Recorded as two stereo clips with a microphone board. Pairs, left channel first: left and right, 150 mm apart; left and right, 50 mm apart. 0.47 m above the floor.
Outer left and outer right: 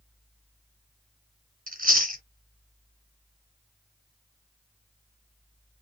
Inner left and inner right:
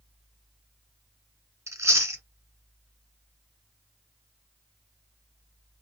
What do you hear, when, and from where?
1.7 s chewing: 70° right (ahead or behind), 1.3 m